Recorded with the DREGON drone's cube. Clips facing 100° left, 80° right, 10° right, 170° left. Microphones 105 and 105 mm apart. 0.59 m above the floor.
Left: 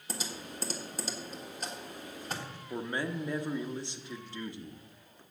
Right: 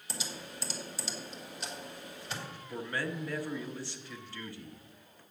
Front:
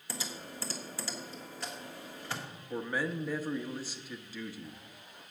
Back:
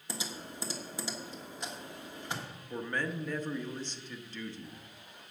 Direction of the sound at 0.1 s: 105° left.